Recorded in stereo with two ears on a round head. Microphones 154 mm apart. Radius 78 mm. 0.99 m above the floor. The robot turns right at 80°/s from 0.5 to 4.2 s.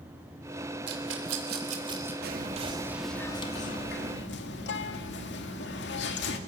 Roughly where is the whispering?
Ahead right.